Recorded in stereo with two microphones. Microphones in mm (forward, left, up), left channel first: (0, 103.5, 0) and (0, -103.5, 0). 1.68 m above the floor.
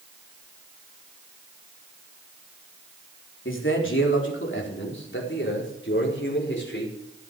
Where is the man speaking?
70° left (ahead or behind), 3.5 m; by 6.9 s 65° left (ahead or behind), 5 m.